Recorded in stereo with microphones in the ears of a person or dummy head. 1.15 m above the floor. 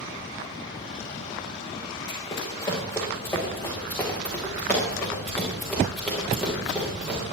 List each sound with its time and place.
2.1 s running footsteps: 25° left (ahead or behind), 4 m; by 7.2 s 5° right (ahead or behind), 6 m